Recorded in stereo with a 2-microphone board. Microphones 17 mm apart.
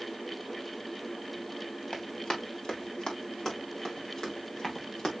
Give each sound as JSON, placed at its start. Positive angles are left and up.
{"t": 1.9, "sound": "running footsteps", "side_deg": 45, "distance_m": 6.0}